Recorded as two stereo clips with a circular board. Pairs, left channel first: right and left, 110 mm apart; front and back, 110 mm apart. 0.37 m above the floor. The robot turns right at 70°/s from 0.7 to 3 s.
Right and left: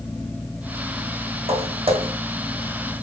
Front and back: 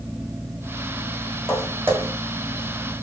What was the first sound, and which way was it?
Footsteps, 85° left.